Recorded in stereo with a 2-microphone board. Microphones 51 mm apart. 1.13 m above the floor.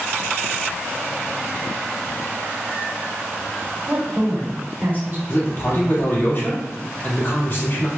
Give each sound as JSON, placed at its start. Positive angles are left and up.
{"t": 3.9, "sound": "a woman speaking", "side_deg": -40, "distance_m": 1.7}
{"t": 5.3, "sound": "a man speaking", "side_deg": 50, "distance_m": 1.7}